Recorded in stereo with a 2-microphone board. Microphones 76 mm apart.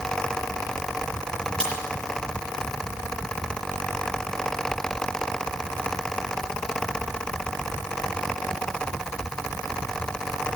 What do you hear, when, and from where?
1.6 s a crack: 15° left (ahead or behind), 6 m